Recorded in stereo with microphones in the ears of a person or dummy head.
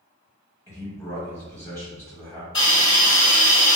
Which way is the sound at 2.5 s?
30° left (ahead or behind).